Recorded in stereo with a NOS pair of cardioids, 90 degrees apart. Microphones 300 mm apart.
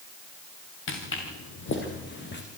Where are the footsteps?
45° left, 7 m; by 2.4 s 35° left, 5 m.